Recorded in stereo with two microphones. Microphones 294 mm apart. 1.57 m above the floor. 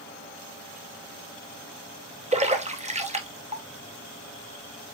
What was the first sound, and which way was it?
A splash, 25° right (ahead or behind).